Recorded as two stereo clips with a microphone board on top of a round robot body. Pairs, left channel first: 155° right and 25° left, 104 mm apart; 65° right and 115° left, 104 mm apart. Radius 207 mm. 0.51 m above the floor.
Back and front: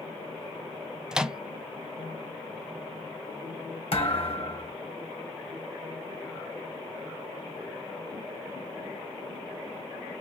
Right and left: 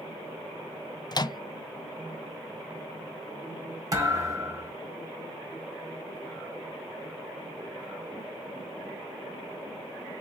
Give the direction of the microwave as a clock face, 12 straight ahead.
2 o'clock.